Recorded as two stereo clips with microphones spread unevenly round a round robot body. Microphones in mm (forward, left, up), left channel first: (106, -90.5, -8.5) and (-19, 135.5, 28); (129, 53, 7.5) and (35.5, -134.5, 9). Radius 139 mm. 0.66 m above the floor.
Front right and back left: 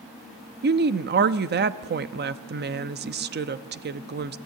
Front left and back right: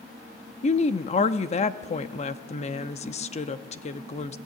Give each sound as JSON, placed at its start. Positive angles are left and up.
{"t": 0.6, "sound": "a woman speaking", "azimuth_deg": 90, "distance_m": 0.8}